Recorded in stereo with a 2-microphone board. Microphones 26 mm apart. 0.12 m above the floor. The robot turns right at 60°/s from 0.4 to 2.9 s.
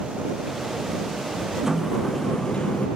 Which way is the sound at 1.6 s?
20° right.